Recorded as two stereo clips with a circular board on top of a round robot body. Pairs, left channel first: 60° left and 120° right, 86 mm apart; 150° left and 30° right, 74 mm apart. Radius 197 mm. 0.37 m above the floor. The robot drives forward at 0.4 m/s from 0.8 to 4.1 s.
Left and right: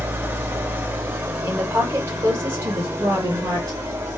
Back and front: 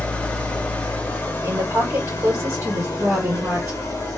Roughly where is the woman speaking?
Ahead right.